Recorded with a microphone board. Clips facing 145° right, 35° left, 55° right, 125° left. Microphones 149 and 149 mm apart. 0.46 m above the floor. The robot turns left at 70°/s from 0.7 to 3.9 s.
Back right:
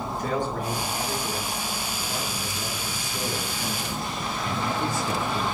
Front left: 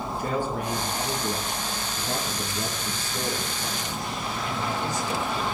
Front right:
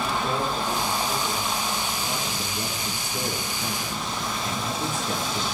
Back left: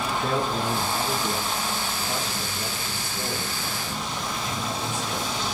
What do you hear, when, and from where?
0.2 s a man speaking: 115° left, 5 m; by 5.4 s 110° right, 5 m